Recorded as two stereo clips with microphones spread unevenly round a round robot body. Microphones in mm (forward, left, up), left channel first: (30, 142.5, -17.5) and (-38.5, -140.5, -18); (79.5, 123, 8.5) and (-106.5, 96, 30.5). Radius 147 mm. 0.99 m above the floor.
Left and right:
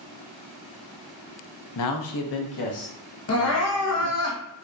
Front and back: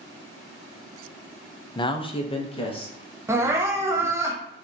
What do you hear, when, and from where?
1.8 s a man speaking: 65° left, 0.5 m; by 4.3 s 70° left, 2.5 m
3.3 s crying: 110° left, 1.0 m